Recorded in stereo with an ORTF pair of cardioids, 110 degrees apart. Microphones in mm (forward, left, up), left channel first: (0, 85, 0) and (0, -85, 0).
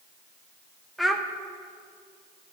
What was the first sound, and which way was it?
A child speaking, straight ahead.